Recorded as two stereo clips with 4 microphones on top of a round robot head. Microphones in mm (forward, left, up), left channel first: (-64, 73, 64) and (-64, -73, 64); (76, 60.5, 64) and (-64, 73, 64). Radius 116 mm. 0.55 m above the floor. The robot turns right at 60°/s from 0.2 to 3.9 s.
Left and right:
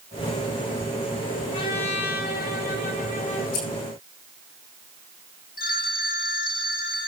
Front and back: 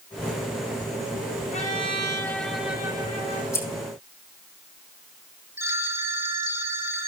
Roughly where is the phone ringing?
Left.